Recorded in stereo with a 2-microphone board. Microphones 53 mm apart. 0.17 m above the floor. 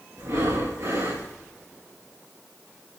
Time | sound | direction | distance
0.2 | breathing | 70° right (ahead or behind) | 3 m